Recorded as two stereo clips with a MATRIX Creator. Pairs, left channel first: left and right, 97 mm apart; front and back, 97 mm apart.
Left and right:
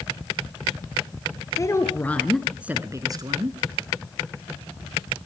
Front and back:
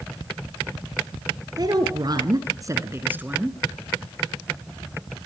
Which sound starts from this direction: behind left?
A woman speaking, at 1.6 s.